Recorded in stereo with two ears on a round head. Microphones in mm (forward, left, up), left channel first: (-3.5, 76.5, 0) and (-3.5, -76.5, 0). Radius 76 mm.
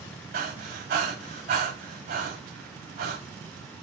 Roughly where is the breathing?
Right.